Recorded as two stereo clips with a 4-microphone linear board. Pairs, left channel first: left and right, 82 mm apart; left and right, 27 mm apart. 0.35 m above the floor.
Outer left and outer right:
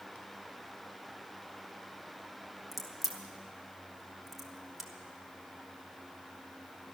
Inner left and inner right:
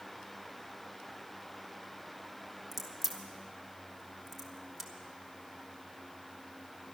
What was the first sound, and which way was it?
A crack, 5° right (ahead or behind).